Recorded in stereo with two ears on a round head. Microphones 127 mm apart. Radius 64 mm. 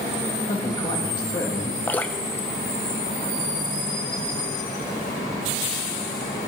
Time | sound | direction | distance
0.5 | a man speaking | 30° left (ahead or behind) | 2.5 m
1.9 | dripping | 15° left (ahead or behind) | 0.6 m